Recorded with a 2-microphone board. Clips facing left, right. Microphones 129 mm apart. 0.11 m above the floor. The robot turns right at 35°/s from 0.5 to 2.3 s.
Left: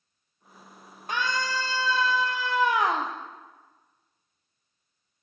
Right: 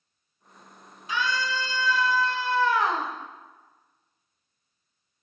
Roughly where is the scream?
Behind left.